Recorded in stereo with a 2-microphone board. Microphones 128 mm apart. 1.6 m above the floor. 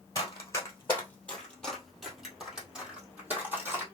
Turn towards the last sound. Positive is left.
turn(degrees=-15)  # may be behind; listen again after turning